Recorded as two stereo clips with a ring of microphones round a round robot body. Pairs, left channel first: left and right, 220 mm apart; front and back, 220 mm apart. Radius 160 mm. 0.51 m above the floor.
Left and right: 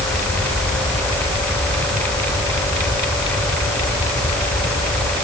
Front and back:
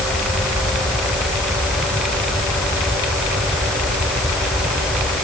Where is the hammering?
I don't hear hammering.